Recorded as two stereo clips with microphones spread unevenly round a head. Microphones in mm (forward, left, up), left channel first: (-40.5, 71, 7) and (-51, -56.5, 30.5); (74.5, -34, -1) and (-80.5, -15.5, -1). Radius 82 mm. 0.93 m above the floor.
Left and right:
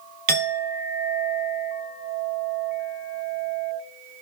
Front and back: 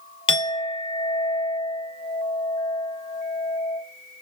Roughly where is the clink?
Ahead right.